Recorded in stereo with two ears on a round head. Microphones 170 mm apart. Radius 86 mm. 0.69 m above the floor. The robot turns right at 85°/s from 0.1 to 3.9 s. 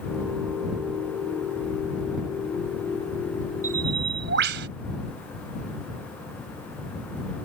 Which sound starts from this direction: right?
A bird, at 3.6 s.